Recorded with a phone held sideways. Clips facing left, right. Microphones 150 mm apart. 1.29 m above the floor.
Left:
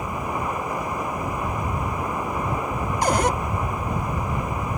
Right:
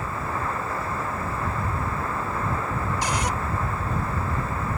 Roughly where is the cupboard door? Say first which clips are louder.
Left 10 dB; left.